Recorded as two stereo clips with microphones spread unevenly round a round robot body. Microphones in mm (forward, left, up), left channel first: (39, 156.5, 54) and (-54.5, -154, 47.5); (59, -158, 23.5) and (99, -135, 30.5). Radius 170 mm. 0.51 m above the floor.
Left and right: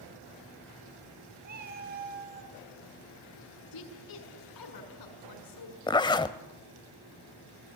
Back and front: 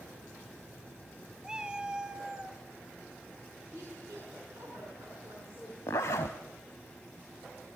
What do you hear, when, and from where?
1.4 s a cat meowing: 45° right, 2.5 m; by 2.6 s 40° right, 1.5 m
3.7 s a woman speaking: 95° left, 6.5 m
5.9 s a zipper: 150° left, 0.6 m